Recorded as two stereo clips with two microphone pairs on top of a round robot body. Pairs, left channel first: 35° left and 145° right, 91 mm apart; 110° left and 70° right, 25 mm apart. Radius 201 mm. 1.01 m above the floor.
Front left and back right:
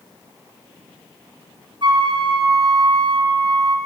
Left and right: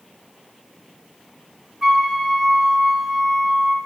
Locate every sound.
1.8 s a flute: 135° right, 1.1 m